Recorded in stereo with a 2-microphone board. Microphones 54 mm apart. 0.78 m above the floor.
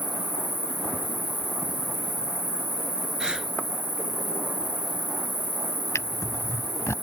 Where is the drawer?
65° left (ahead or behind).